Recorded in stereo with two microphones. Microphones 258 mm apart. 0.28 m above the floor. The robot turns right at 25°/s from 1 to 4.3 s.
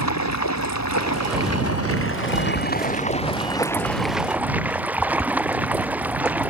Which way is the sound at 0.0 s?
105° left.